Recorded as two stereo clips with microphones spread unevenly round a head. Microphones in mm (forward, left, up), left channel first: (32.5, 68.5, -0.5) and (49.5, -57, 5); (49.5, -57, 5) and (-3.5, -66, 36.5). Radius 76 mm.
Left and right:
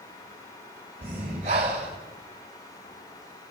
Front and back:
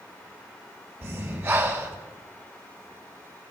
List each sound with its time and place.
1.0 s breathing: 135° right, 2 m